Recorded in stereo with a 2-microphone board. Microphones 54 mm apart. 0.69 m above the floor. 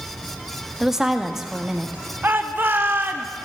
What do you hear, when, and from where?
0.8 s a woman speaking: 10° right (ahead or behind), 0.7 m
2.2 s a shout: 40° right (ahead or behind), 0.8 m